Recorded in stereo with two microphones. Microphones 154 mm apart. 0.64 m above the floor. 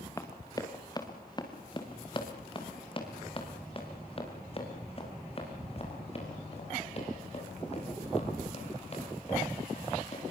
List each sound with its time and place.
0.2 s running footsteps: 20° left (ahead or behind), 3 m; by 10.2 s 45° left (ahead or behind), 12.5 m